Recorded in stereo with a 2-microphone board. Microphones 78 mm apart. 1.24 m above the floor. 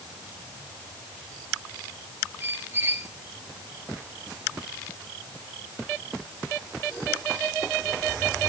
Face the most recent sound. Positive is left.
turn(degrees=-35)  # may be behind; listen again after turning